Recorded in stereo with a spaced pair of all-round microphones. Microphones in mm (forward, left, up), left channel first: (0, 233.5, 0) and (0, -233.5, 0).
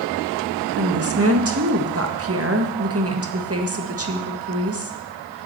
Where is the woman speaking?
30° right (ahead or behind), 1.7 m.